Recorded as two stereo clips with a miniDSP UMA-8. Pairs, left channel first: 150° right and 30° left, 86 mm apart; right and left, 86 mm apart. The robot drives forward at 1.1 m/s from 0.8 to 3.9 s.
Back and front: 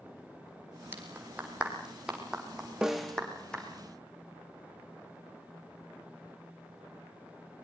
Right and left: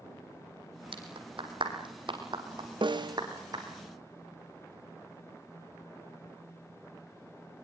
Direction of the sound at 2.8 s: 115° left.